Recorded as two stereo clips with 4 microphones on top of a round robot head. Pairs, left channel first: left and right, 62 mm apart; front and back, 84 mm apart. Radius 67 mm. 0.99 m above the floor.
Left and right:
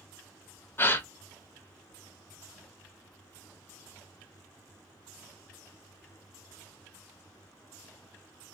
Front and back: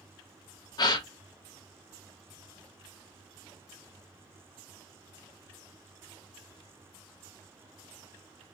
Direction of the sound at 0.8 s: 40° left.